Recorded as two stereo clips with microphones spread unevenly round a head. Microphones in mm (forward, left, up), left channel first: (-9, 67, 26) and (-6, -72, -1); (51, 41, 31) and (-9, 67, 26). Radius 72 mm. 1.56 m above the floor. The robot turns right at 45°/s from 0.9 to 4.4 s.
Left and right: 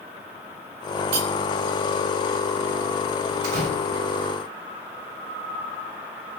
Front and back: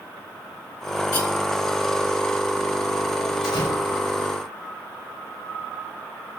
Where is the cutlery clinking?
65° right, 1.7 m; by 1.3 s 60° right, 1.7 m.